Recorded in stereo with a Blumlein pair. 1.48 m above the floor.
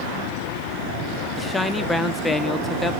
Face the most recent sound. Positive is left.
turn(degrees=10)